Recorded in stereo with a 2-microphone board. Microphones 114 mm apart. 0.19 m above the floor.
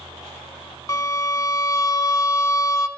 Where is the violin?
35° left (ahead or behind), 0.5 m.